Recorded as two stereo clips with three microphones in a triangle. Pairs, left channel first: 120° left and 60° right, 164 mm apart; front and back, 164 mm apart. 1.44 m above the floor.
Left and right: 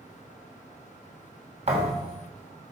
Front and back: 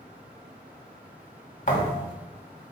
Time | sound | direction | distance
1.7 | a thud | 25° right | 2 m